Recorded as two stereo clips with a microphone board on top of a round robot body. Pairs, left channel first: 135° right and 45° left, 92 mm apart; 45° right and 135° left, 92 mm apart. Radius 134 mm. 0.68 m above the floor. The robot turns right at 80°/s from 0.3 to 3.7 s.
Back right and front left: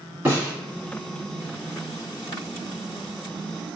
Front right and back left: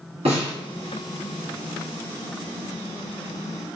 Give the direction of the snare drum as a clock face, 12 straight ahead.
8 o'clock.